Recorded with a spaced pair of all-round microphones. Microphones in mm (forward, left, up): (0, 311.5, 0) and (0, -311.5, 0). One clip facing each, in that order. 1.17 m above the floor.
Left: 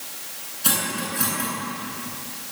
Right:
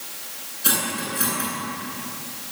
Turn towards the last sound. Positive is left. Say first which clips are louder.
# even
turn(degrees=25)  # may be behind; listen again after turning